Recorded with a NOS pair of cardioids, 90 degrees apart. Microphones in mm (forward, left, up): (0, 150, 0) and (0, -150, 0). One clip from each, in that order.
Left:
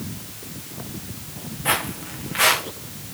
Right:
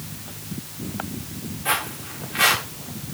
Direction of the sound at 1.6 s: 40° left.